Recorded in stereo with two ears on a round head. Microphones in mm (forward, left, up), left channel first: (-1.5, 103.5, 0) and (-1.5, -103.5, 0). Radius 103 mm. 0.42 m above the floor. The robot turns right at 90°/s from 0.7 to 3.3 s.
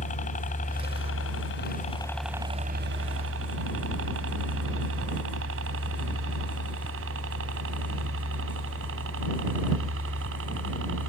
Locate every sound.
0.0 s a helicopter: 35° left (ahead or behind); by 11.1 s 60° right (ahead or behind)